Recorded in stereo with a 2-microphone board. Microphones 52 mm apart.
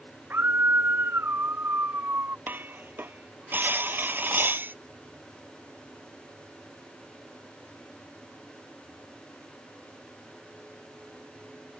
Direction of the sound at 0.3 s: 45° right (ahead or behind).